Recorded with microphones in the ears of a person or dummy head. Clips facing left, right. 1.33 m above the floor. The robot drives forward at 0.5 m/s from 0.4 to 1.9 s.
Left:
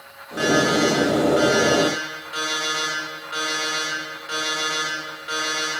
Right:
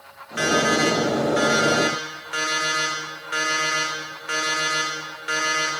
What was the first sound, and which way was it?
An alarm clock, 45° right (ahead or behind).